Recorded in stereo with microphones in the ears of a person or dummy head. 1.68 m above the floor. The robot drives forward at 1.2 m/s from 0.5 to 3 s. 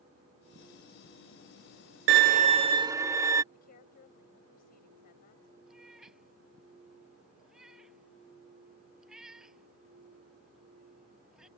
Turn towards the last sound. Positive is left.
turn(degrees=-5)  # may be behind; listen again after turning